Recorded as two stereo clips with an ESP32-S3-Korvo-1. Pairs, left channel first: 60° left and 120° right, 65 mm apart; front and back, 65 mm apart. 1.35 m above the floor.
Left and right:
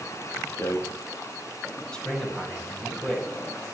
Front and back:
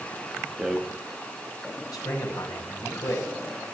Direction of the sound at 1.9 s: 20° right.